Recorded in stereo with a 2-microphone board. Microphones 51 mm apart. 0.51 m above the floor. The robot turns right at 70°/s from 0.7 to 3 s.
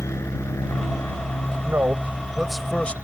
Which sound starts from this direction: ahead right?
A man speaking, at 1.6 s.